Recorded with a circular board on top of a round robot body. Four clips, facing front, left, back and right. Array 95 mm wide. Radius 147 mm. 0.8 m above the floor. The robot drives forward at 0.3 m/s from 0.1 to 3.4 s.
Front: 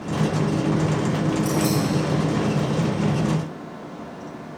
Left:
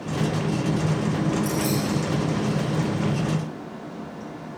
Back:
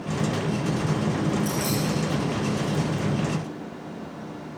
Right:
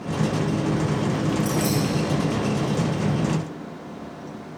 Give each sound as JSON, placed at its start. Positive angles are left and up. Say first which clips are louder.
{"t": 1.4, "sound": "keys jangling", "louder": "right 1 dB, front 5 dB", "azimuth_deg": -40, "distance_m": 6.0}